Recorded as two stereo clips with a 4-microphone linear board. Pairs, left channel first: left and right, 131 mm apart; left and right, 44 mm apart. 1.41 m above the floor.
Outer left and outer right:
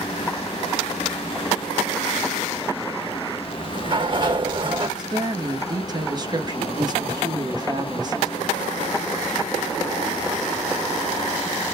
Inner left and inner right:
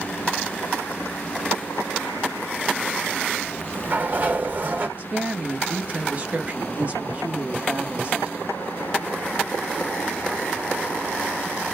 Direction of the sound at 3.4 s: 40° right (ahead or behind).